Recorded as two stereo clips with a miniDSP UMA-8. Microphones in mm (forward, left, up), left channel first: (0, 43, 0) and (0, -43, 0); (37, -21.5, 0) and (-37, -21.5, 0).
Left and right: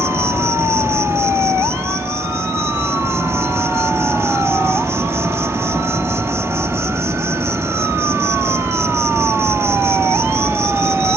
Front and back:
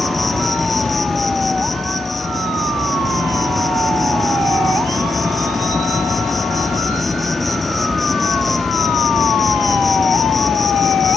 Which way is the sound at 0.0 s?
90° right.